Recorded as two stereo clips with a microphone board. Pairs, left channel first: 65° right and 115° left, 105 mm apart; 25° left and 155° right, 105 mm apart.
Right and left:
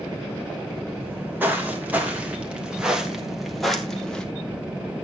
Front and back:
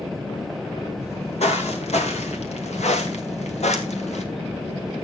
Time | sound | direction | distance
1.0 | footsteps | 40° left | 4 m